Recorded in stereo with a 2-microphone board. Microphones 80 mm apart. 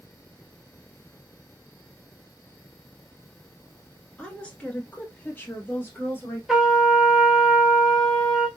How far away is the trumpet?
About 1.2 m.